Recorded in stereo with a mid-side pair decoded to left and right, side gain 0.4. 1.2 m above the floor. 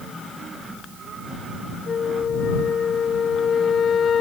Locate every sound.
1.9 s a flute: 55° left